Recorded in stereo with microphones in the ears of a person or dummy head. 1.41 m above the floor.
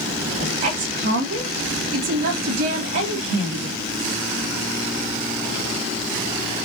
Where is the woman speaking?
55° right (ahead or behind), 1.9 m.